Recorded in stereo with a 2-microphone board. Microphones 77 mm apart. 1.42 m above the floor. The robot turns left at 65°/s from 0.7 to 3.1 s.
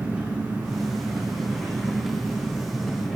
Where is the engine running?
25° right, 1.5 m; by 3.2 s 175° left, 1.5 m.